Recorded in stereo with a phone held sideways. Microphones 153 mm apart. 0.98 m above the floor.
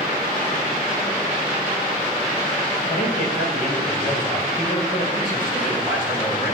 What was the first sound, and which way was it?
A man speaking, 80° left.